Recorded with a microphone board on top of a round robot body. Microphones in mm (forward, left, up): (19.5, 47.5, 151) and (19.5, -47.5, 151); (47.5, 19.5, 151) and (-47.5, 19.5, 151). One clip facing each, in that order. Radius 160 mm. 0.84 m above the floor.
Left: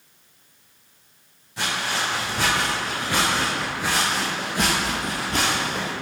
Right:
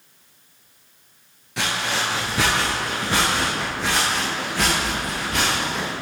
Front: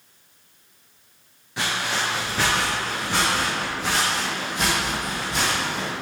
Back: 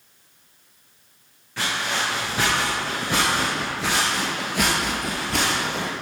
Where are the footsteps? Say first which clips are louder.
Right 1 dB, even; 75° right, 1.1 m; by 5.9 s 150° left, 1.8 m.